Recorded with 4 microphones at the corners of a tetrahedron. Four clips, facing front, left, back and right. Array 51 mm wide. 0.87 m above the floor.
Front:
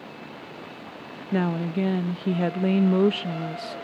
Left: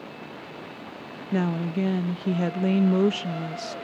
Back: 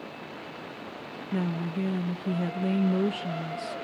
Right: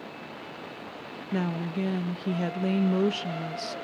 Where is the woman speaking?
10° left, 0.6 m.